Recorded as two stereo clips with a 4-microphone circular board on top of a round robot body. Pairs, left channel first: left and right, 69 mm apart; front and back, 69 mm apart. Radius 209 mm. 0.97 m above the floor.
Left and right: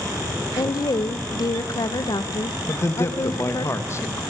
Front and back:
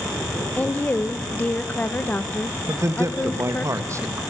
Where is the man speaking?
140° left, 2 m.